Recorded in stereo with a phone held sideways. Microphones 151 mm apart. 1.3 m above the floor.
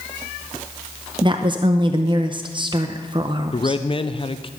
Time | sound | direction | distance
1.2 | a woman speaking | 30° right (ahead or behind) | 0.6 m
3.5 | a man speaking | 35° left (ahead or behind) | 0.6 m